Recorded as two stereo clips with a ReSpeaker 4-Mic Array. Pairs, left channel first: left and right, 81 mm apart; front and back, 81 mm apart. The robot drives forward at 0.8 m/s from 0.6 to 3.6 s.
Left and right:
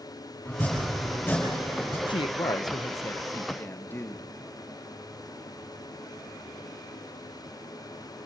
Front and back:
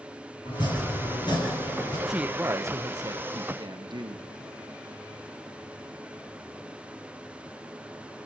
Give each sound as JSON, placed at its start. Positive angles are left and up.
{"t": 0.5, "sound": "chopping", "azimuth_deg": 25, "distance_m": 8.0}
{"t": 2.1, "sound": "a woman speaking", "azimuth_deg": 95, "distance_m": 0.7}